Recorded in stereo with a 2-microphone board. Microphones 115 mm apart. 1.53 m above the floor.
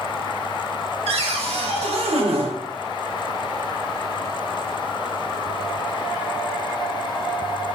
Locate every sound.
1.1 s a cupboard door: 60° right (ahead or behind), 0.5 m